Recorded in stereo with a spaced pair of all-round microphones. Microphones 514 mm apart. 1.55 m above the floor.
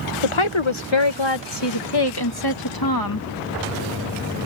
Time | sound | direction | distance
0.2 | a woman speaking | 70° left (ahead or behind) | ?